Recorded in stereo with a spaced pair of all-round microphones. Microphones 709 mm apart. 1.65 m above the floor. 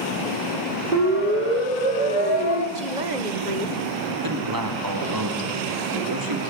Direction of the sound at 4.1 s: 30° right (ahead or behind).